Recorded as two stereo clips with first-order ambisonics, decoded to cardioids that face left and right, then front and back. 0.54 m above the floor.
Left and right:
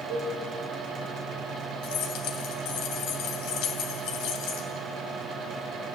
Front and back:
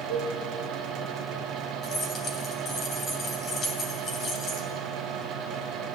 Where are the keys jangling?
60° left, 2.5 m.